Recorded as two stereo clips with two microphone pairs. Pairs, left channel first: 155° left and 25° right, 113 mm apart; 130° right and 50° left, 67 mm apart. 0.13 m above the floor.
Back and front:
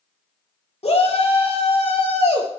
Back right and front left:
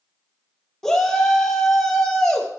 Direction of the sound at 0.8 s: 150° left.